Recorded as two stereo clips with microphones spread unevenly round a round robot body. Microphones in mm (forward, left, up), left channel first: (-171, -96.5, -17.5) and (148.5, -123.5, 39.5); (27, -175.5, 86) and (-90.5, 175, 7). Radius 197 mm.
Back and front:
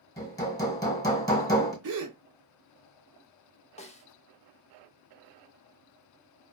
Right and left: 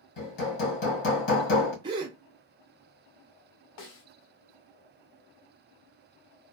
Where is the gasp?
25° left, 0.5 m.